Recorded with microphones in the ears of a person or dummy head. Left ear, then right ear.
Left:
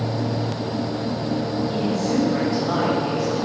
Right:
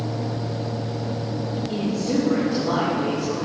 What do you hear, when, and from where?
1.7 s a woman speaking: 45° right (ahead or behind), 2.5 m